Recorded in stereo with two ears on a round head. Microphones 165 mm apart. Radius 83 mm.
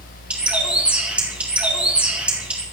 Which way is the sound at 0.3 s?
5° right (ahead or behind).